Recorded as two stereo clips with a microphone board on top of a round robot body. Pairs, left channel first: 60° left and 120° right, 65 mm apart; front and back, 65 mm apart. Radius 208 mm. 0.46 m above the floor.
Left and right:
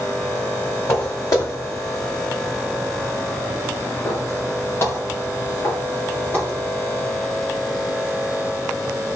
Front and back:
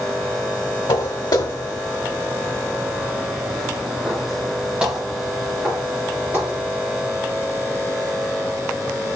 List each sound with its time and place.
0.9 s footsteps: 10° left, 3 m; by 6.6 s 120° left, 7 m